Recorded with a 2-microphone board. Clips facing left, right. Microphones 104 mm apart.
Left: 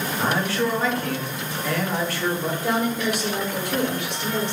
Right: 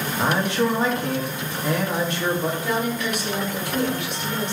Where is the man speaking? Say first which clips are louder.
Right 2 dB; 20° right (ahead or behind), 0.9 m.